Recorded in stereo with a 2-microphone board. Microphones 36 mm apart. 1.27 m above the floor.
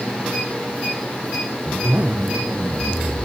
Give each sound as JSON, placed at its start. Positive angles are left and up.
{"t": 1.7, "sound": "a zipper", "side_deg": -65, "distance_m": 1.1}